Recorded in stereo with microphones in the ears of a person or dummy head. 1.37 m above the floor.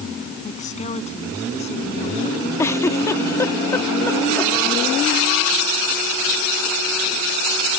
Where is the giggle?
15° left (ahead or behind).